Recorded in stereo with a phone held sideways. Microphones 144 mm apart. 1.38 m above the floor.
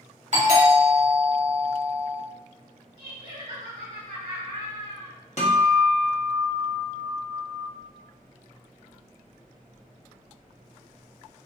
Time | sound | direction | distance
0.3 | a doorbell | 55° right (ahead or behind) | 1.5 m
3.0 | laughter | 80° right | 1.7 m
5.4 | a guitar | 50° left (ahead or behind) | 1.1 m